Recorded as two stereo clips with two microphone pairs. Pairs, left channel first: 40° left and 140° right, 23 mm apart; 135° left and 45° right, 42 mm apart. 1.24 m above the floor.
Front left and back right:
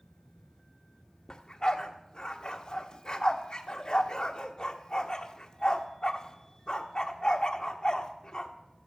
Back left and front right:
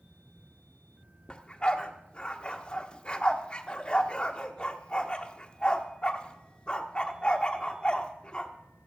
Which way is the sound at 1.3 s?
85° left.